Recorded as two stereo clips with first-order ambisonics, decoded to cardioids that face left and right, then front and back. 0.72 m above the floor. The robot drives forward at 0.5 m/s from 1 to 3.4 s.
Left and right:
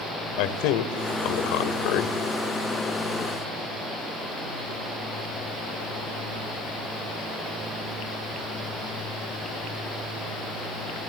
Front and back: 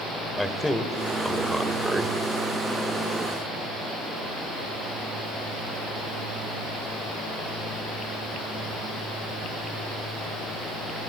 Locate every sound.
0.4 s a man speaking: 85° left, 2.5 m; by 2.2 s 100° left, 2.5 m